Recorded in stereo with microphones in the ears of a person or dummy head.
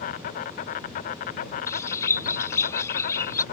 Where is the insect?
40° left (ahead or behind).